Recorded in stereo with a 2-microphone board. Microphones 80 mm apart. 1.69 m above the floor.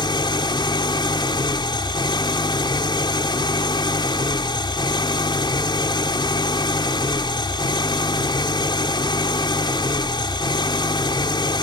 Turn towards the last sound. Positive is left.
turn(degrees=75)  # may be behind; listen again after turning